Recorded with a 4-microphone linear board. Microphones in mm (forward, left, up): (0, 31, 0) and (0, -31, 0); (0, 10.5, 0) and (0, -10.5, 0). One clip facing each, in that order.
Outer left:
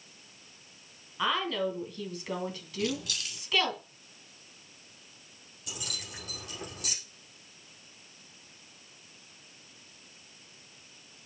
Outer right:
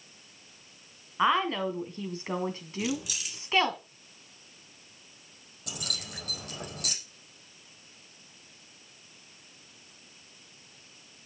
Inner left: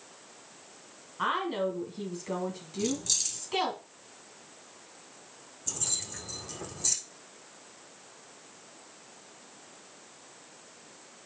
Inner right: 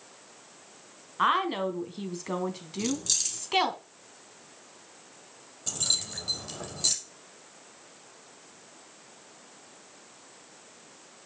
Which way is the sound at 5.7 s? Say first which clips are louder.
Outer right 2 dB, inner right 7 dB; 55° right (ahead or behind).